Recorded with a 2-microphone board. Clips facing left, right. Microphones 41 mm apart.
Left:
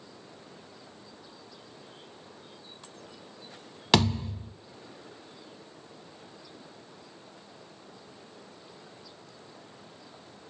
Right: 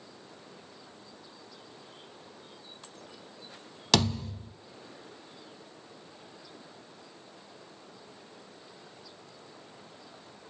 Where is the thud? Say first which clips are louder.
Left 3 dB; 20° left (ahead or behind), 0.5 m.